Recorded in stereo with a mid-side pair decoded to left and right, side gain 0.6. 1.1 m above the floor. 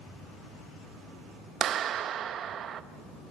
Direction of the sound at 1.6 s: 50° right.